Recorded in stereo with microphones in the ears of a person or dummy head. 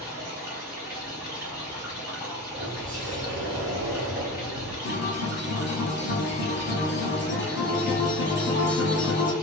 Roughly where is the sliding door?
Centre.